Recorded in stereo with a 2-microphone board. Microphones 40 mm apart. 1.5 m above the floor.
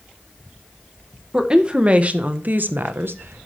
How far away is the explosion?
No explosion in this recording.